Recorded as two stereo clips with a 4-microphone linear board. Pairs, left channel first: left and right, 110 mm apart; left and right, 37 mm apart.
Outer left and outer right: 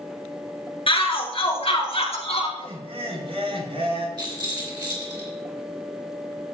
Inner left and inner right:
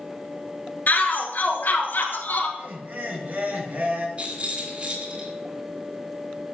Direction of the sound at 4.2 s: 45° right (ahead or behind).